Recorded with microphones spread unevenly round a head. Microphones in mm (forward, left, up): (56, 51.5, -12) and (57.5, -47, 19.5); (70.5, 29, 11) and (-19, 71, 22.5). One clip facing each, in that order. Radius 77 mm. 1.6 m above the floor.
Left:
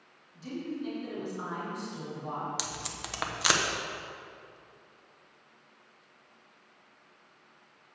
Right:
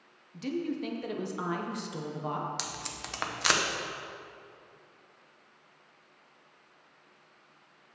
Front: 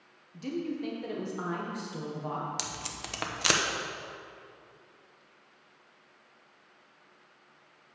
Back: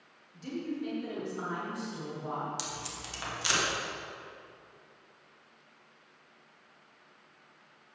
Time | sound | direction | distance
0.3 | a woman speaking | 80° right | 1.3 m
2.6 | tape being pulled | straight ahead | 1.1 m